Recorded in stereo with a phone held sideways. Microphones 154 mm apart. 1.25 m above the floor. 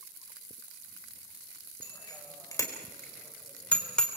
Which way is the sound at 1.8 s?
25° left (ahead or behind).